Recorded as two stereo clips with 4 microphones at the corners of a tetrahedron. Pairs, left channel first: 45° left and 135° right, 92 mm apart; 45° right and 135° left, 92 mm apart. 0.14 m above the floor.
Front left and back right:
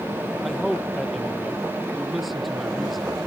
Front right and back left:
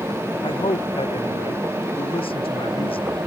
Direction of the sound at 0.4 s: 45° right.